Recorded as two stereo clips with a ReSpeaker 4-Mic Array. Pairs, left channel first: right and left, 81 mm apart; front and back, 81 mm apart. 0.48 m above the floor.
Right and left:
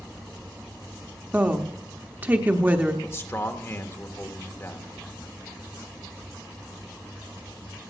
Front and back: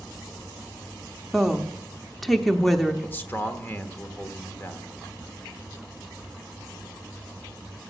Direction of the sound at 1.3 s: 85° left.